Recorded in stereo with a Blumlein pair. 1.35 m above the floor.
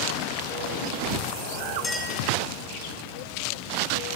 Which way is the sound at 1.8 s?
15° left.